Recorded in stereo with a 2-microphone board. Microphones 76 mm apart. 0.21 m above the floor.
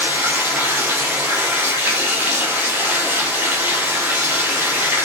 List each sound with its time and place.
0.0 s running water: 25° right (ahead or behind), 4 m